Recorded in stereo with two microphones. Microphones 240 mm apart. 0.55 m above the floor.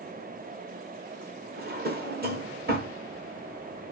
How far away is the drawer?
About 0.8 m.